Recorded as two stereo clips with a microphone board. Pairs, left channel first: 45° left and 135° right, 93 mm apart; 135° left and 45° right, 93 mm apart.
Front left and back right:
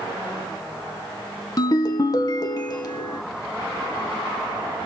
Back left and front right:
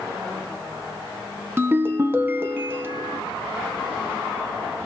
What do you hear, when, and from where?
1.6 s a ringtone: 15° left, 0.7 m